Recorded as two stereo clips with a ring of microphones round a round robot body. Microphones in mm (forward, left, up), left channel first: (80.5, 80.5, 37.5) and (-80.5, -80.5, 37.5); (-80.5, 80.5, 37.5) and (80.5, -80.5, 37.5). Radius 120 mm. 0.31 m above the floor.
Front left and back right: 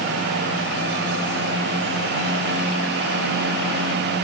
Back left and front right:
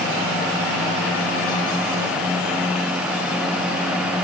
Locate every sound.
Only background noise.